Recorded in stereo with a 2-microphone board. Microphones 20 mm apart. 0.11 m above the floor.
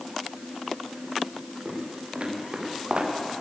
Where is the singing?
I don't hear singing.